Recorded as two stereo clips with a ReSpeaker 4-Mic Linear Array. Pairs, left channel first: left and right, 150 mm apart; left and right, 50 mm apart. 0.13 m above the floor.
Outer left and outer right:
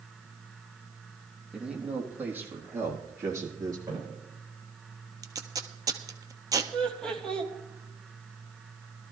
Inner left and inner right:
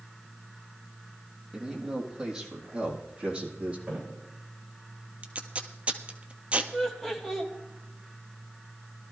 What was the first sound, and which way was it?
A man speaking, 5° right (ahead or behind).